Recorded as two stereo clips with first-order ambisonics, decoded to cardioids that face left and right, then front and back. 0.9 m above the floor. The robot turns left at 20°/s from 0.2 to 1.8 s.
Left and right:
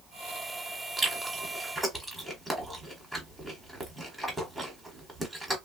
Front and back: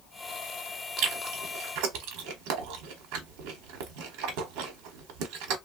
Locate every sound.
1.0 s chewing: 155° right, 1.0 m; by 5.6 s 175° right, 1.0 m